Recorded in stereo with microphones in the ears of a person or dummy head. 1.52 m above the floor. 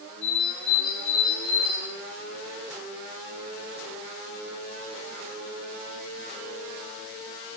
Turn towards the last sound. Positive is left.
turn(degrees=30)  # may be behind; listen again after turning